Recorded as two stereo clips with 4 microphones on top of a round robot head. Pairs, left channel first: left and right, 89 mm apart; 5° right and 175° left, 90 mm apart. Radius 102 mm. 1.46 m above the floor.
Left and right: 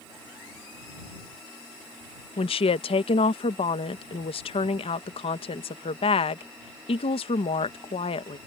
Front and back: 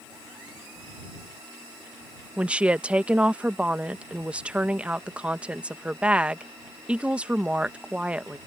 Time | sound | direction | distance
2.4 | a woman speaking | 100° left | ?